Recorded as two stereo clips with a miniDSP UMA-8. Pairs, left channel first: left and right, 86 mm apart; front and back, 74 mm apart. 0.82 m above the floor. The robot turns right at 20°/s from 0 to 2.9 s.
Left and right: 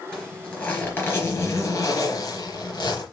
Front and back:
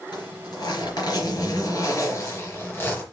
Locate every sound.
0.1 s a zipper: 10° left, 4 m; by 3.0 s 65° left, 4 m